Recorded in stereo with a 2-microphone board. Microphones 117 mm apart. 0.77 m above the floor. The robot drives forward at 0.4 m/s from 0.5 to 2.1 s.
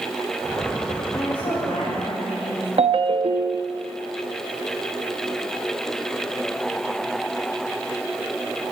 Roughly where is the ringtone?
Right.